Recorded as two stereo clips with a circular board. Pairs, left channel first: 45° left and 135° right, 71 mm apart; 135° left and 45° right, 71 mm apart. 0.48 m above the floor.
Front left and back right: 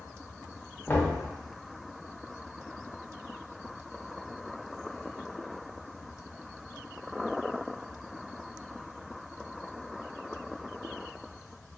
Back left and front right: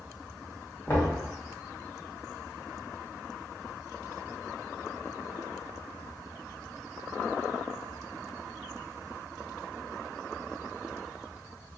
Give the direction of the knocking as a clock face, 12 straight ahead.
9 o'clock.